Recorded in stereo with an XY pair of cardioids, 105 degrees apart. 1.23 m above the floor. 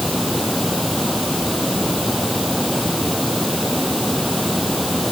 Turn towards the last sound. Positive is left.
turn(degrees=0)